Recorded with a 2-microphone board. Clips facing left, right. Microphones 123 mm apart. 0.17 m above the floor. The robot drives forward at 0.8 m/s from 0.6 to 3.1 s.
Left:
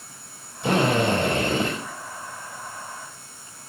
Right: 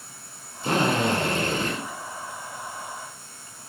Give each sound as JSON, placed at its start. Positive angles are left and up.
{"t": 0.6, "sound": "a drill", "side_deg": 75, "distance_m": 4.5}